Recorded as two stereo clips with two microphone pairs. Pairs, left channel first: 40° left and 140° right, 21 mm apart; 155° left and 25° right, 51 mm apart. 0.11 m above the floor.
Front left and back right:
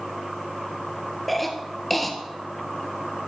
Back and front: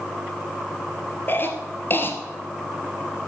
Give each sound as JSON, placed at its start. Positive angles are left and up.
{"t": 1.3, "sound": "a cough", "azimuth_deg": 125, "distance_m": 1.8}